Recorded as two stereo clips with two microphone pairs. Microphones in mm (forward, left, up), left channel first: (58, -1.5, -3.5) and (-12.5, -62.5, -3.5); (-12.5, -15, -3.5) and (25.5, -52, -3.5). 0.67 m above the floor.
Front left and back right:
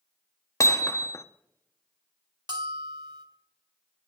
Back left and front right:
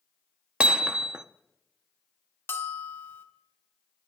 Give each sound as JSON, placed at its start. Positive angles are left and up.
{"t": 0.6, "sound": "hammering", "azimuth_deg": 10, "distance_m": 0.6}
{"t": 2.5, "sound": "a bell", "azimuth_deg": -175, "distance_m": 1.5}